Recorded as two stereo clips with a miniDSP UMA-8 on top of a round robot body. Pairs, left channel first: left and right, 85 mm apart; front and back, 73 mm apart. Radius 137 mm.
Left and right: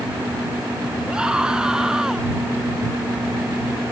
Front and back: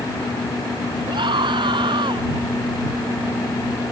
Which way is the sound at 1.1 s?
170° right.